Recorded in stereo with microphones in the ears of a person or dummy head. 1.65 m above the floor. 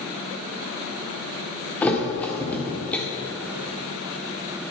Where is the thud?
10° left (ahead or behind), 1.8 m.